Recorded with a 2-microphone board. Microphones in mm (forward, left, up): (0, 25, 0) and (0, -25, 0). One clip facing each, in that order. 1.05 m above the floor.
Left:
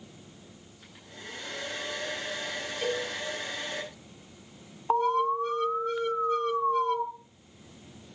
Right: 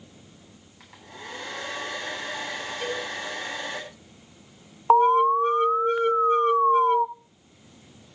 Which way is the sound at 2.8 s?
5° right (ahead or behind).